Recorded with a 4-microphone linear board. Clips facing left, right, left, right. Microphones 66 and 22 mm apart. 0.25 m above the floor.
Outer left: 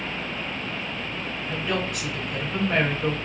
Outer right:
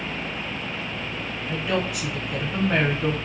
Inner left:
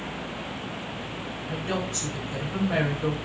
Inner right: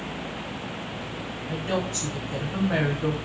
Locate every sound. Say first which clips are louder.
1.5 s a woman speaking: outer right 2 dB, inner right 2 dB; 5° right (ahead or behind), 1.2 m